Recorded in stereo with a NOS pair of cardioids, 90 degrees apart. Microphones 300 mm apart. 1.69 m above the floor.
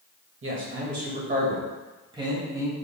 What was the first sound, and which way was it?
A man speaking, 45° right.